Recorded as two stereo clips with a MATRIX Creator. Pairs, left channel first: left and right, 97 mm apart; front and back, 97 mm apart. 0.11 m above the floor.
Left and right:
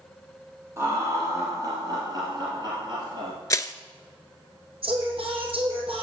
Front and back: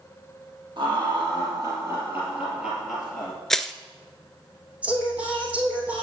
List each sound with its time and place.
0.8 s laughter: 150° right, 4 m; by 3.3 s 75° right, 2.5 m
3.5 s crushing: 85° left, 0.6 m
4.8 s singing: 105° right, 3 m